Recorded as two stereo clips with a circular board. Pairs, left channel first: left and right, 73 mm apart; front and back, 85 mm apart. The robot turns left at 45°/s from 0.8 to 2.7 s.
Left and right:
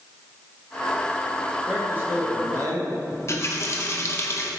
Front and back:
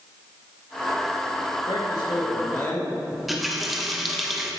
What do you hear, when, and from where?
1.7 s a man speaking: 15° right, 1.9 m; by 3.0 s 60° right, 1.9 m
3.1 s a running tap: 95° left, 0.9 m